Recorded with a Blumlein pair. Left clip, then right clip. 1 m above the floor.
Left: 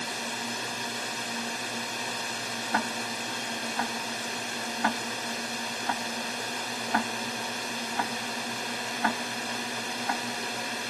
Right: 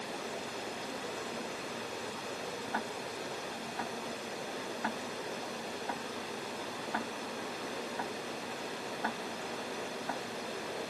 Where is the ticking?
65° left.